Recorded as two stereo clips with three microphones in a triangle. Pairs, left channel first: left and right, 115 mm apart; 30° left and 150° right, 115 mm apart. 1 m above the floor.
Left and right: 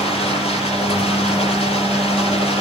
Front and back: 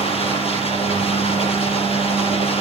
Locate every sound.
0.0 s running water: 60° left, 7.5 m